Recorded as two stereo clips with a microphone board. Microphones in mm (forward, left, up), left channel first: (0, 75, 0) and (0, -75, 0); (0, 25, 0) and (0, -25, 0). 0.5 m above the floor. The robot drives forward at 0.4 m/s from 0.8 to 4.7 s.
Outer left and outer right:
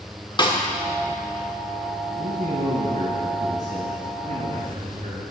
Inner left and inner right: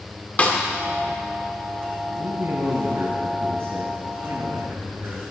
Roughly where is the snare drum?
Left.